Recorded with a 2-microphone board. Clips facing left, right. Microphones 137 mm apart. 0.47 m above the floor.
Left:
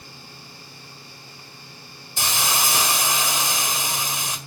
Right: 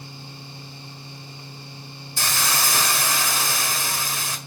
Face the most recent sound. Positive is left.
turn(degrees=20)  # may be behind; listen again after turning